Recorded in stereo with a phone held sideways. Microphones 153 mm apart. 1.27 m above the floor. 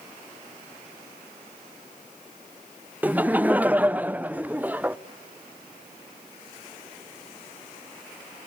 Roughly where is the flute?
No flute in this recording.